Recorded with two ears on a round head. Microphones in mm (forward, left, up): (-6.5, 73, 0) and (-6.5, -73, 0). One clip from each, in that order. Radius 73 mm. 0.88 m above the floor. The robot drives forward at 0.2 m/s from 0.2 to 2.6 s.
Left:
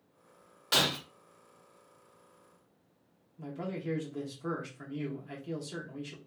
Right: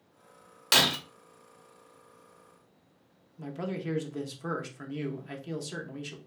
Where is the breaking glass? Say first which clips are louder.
Right 4 dB; 45° right (ahead or behind), 0.7 m; by 1.0 s 50° right (ahead or behind), 0.7 m.